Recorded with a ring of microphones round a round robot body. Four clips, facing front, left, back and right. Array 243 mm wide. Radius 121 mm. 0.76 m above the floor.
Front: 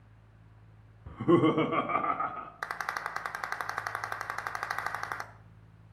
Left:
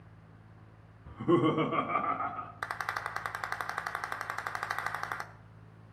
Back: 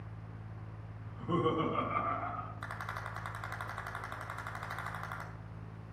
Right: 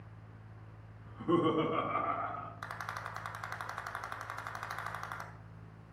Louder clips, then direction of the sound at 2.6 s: Left 6 dB, front 6 dB; 40° left.